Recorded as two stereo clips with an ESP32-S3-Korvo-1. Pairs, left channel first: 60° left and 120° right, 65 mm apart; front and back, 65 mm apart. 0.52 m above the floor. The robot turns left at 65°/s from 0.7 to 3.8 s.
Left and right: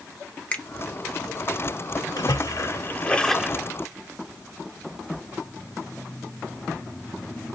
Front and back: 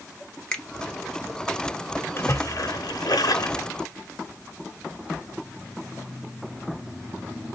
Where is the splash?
55° left, 0.7 m; by 3.7 s 45° right, 0.7 m.